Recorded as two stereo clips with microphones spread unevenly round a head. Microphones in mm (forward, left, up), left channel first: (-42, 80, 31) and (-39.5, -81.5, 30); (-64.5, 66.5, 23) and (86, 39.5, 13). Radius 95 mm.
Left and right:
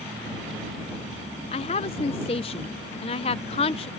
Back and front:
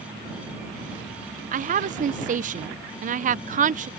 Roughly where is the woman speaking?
Ahead left.